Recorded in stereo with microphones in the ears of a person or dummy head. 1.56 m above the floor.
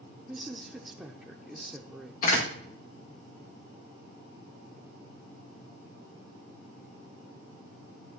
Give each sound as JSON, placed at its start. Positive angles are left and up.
{"t": 0.3, "sound": "a woman speaking", "side_deg": -10, "distance_m": 0.6}
{"t": 2.2, "sound": "a door slam", "side_deg": 55, "distance_m": 2.5}